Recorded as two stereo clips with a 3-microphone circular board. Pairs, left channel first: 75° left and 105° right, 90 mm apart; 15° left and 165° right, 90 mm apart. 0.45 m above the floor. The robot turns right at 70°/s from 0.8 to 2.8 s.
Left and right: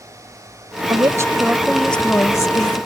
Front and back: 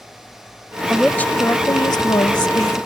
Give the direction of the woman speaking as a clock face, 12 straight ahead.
3 o'clock.